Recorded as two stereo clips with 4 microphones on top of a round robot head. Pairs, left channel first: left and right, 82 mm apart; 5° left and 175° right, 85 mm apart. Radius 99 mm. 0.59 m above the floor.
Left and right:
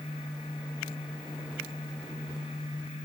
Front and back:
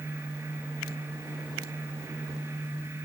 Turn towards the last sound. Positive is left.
No sound to turn to.